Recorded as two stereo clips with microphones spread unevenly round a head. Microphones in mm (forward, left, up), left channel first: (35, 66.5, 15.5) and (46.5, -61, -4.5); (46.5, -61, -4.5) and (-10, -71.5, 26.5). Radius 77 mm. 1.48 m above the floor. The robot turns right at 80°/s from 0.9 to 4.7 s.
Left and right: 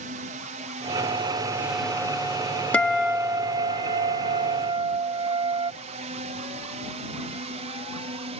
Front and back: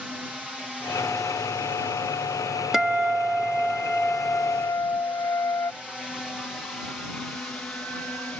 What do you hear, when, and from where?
0.0 s a drone: 85° right; by 8.4 s 50° right
2.7 s a guitar: 160° left; by 5.7 s 45° right